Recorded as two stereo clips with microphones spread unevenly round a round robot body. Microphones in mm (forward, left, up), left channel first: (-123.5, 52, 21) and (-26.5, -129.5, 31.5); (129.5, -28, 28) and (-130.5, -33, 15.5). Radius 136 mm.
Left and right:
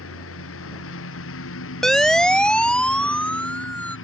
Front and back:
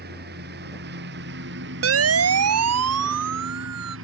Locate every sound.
0.0 s a lawn mower: 125° left; by 4.0 s 135° left
1.8 s a siren: 155° right; by 4.0 s 160° right